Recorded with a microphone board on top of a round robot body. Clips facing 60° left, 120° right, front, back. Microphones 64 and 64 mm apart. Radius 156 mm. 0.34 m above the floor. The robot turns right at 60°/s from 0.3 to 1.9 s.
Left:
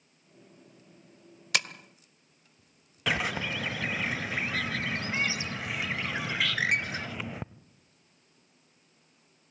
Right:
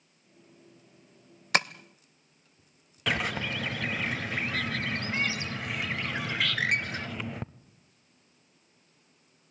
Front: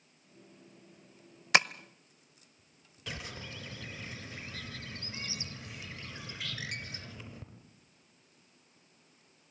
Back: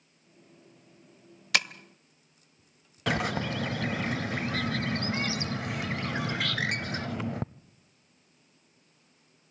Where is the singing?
No singing in this recording.